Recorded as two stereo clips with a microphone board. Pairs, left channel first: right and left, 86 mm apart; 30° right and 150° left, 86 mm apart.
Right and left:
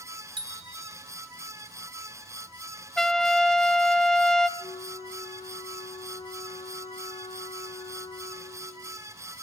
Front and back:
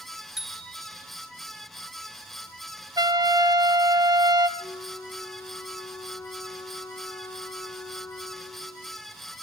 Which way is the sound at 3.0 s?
175° right.